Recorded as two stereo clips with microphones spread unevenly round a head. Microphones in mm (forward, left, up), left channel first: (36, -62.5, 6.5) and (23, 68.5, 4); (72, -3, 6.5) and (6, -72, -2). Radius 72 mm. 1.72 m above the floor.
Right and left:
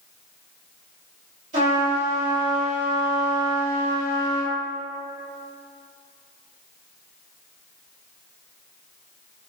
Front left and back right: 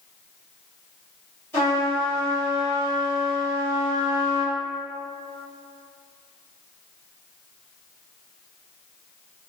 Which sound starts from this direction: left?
A trumpet, at 1.5 s.